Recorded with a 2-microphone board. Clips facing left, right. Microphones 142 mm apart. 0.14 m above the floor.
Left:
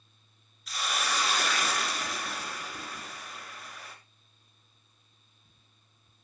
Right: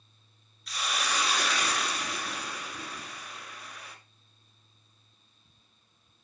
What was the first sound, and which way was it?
A hiss, centre (ahead or behind).